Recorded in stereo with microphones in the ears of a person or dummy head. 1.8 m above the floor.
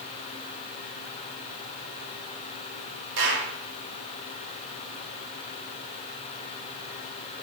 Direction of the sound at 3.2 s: 65° right (ahead or behind).